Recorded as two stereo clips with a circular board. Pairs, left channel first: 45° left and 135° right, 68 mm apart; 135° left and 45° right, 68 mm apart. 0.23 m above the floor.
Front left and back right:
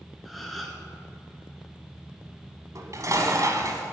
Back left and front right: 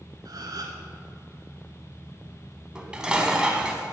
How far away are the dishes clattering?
About 1.1 m.